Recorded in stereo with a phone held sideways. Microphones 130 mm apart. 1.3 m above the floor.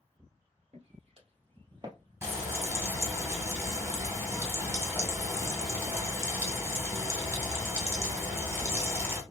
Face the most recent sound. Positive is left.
turn(degrees=-20)  # may be behind; listen again after turning